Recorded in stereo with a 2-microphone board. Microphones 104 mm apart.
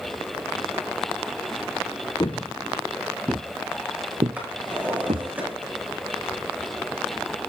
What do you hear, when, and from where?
2.2 s footsteps: 45° left (ahead or behind), 1.1 m; by 5.3 s 75° right (ahead or behind), 2 m
4.4 s a drawer: 15° right (ahead or behind), 9.5 m